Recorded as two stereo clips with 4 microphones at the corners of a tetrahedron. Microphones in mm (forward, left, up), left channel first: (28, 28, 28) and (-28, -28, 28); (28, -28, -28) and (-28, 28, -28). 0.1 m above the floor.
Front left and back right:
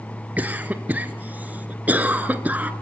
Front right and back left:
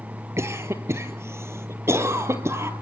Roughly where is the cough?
Behind.